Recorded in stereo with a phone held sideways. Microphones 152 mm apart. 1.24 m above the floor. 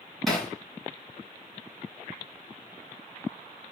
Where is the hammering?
Centre (ahead or behind), 3 m.